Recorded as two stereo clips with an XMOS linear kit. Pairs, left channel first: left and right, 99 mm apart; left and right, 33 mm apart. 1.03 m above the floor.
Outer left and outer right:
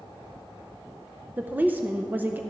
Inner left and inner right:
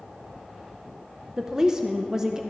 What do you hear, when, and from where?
1.4 s a woman speaking: 20° right (ahead or behind), 0.6 m